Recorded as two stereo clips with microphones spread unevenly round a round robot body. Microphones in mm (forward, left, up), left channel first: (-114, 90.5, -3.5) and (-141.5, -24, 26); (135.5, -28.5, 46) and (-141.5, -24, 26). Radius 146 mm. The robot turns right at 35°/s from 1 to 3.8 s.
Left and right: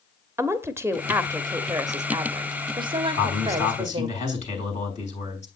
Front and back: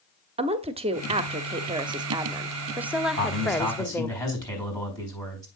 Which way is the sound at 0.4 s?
Straight behind.